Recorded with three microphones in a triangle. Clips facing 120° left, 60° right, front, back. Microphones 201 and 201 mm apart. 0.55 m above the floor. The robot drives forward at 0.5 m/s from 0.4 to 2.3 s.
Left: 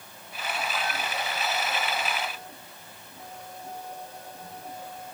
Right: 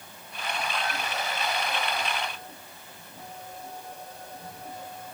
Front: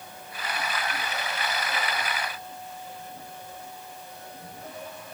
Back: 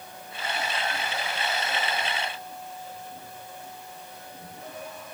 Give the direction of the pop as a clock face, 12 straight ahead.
I don't hear a pop.